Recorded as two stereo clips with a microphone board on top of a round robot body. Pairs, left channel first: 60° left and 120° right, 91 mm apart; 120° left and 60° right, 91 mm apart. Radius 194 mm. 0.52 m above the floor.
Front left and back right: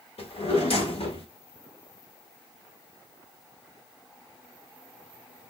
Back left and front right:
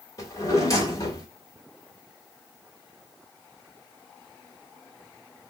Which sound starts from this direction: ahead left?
A drawer, at 0.2 s.